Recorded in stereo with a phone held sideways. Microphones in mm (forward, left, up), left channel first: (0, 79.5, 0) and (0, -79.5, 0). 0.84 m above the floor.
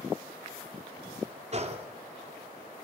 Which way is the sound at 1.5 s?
45° right (ahead or behind).